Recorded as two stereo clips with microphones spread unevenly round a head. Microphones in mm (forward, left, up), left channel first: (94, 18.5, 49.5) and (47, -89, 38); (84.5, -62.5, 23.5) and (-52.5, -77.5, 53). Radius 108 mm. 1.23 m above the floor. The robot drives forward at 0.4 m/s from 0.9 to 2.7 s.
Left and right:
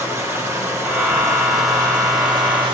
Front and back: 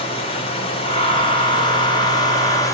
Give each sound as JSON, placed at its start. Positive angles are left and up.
{"t": 0.0, "sound": "running water", "azimuth_deg": -45, "distance_m": 2.0}